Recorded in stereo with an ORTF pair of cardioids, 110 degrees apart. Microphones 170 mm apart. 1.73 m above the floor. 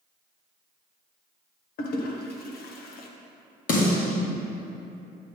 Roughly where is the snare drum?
Ahead left.